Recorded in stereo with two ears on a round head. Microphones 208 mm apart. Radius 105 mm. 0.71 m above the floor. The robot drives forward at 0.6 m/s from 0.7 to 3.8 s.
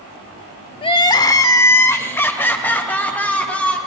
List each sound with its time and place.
0.8 s crying: 25° left (ahead or behind), 0.7 m; by 3.8 s 5° left (ahead or behind), 2.5 m